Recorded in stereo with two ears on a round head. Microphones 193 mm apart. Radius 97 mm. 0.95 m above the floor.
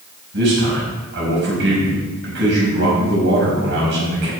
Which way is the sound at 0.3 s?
55° right (ahead or behind).